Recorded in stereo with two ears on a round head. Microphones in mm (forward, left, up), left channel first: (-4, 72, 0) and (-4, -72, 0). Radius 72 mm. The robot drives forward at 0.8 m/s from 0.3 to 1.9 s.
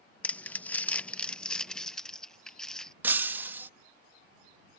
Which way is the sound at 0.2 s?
10° left (ahead or behind).